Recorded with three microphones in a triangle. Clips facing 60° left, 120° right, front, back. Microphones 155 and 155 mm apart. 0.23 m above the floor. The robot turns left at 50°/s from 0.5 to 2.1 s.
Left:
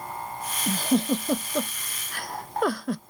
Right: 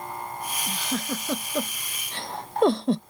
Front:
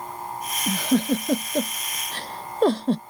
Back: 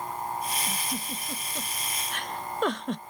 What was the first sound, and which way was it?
A giggle, 15° left.